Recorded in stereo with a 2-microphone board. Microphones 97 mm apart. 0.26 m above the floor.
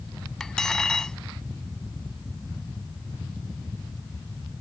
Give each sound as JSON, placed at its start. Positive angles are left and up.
{"t": 0.4, "sound": "cutlery clinking", "side_deg": 5}